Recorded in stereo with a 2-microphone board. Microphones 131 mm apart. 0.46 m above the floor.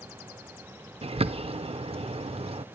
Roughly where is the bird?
Right.